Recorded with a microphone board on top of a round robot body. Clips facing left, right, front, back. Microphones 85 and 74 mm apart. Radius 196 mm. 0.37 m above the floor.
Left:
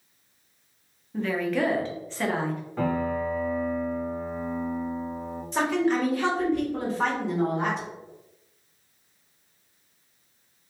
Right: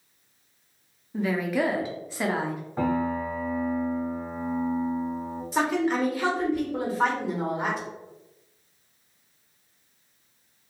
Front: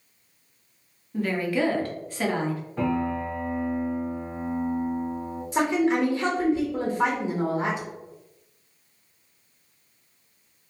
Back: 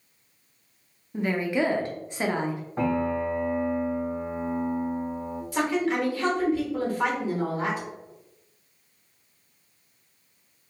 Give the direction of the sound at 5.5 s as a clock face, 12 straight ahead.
12 o'clock.